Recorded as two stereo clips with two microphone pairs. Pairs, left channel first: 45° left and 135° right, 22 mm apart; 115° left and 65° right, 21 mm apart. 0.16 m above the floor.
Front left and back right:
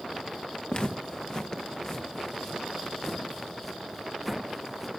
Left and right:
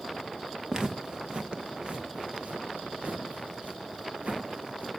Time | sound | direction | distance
0.7 | footsteps | 5° right | 1.8 m